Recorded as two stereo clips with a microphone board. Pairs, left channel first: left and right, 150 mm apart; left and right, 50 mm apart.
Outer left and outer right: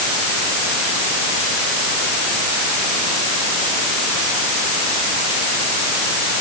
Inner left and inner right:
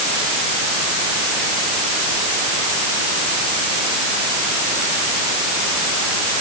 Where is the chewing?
No chewing in this recording.